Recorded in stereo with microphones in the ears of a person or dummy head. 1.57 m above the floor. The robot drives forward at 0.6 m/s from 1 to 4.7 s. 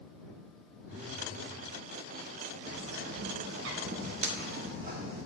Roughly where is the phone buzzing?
Centre.